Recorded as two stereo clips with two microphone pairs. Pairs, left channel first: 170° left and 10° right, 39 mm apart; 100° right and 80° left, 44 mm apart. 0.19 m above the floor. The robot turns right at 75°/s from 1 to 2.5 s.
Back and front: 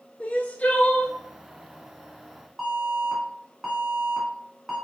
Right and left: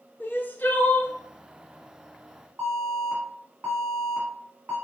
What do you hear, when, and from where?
0.2 s crying: 145° right, 0.6 m; by 1.1 s 135° right, 0.6 m
2.6 s an alarm: 75° left, 2 m